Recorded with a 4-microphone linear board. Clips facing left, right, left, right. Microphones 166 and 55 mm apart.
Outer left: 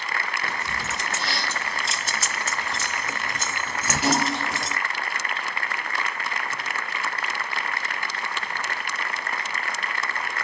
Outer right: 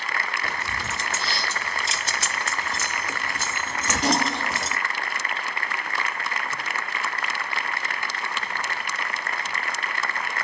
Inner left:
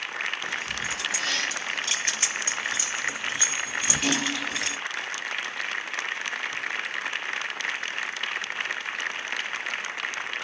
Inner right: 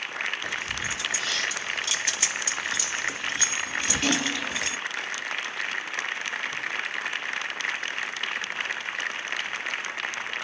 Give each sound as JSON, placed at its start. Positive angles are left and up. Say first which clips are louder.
{"t": 0.4, "sound": "keys jangling", "louder": "even, even", "side_deg": 70, "distance_m": 1.7}